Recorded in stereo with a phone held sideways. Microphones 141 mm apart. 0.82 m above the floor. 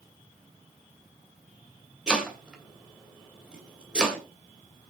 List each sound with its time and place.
2.1 s chopping: 5° right (ahead or behind), 2.5 m